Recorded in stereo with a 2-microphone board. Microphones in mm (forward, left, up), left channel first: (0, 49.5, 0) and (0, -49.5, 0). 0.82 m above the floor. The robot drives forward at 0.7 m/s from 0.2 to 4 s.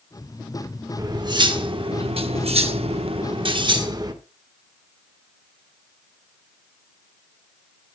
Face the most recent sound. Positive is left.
turn(degrees=-45)  # may be behind; listen again after turning